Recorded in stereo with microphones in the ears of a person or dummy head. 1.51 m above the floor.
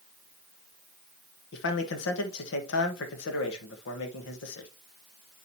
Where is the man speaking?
70° left (ahead or behind), 1.4 m.